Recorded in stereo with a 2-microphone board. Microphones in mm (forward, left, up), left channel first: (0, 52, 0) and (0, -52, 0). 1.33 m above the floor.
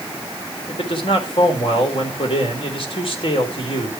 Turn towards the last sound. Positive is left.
turn(degrees=60)  # may be behind; listen again after turning